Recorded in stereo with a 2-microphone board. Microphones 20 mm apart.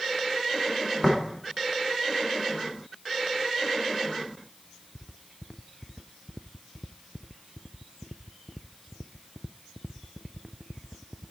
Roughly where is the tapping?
Centre.